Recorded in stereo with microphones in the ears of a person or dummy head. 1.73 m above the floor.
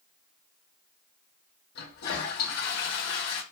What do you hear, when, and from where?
1.8 s a toilet flushing: 60° left (ahead or behind), 0.7 m